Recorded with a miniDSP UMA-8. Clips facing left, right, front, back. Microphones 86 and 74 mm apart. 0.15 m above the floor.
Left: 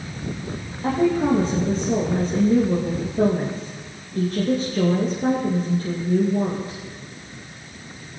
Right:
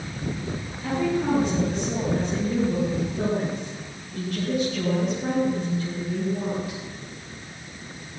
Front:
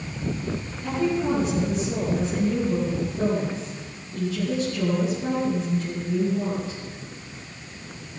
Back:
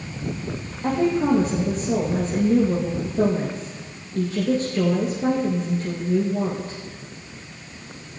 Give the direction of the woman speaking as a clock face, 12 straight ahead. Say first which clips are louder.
Left 5 dB, back 4 dB; 7 o'clock.